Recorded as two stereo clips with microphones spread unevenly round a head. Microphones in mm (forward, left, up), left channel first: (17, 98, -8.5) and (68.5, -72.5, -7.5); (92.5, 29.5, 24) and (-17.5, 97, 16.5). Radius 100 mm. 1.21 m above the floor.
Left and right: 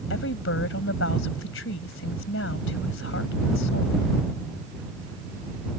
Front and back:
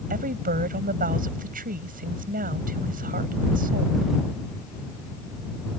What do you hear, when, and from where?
0.1 s a woman speaking: 140° left